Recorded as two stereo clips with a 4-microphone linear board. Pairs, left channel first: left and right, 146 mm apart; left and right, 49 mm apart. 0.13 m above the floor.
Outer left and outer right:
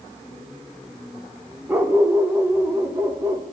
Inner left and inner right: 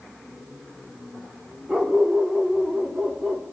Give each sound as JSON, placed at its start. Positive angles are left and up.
{"t": 1.7, "sound": "a dog barking", "side_deg": -15, "distance_m": 4.0}